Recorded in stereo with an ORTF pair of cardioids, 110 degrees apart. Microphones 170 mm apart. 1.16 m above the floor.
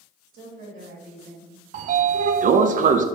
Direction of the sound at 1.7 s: 50° right.